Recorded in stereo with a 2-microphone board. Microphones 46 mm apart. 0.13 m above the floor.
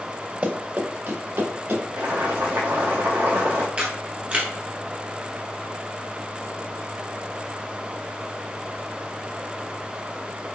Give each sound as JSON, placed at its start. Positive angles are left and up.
{"t": 0.4, "sound": "running footsteps", "side_deg": -30, "distance_m": 1.0}
{"t": 2.0, "sound": "boiling", "side_deg": -85, "distance_m": 1.8}
{"t": 3.8, "sound": "a camera shutter", "side_deg": -25, "distance_m": 1.3}